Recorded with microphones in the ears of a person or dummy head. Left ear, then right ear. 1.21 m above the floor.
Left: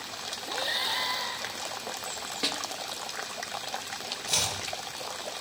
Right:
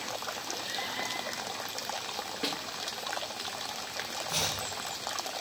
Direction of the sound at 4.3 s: 55° left (ahead or behind).